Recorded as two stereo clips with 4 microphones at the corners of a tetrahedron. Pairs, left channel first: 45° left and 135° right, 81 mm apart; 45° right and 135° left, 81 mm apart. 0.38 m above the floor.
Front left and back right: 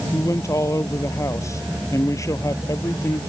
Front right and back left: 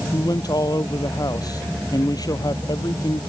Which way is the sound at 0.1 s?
5° right.